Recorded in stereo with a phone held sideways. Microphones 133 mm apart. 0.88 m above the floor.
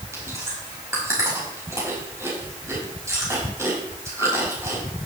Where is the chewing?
20° right (ahead or behind), 5 m.